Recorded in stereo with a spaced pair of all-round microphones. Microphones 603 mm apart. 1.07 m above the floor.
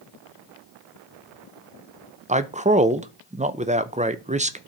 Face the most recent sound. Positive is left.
turn(degrees=-15)  # may be behind; listen again after turning